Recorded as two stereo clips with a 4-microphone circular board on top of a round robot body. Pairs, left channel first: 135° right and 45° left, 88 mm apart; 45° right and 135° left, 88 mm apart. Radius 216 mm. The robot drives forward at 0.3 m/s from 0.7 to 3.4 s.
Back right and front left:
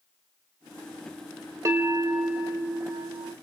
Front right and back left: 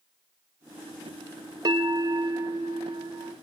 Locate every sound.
1.6 s a bell: 95° left, 0.9 m; by 3.3 s 125° left, 1.1 m